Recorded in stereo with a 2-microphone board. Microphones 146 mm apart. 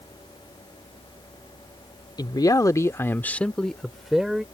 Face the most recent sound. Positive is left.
turn(degrees=-5)  # may be behind; listen again after turning